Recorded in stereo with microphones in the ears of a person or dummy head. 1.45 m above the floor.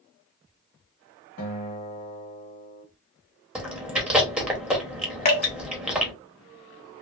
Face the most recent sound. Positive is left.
turn(degrees=30)  # may be behind; listen again after turning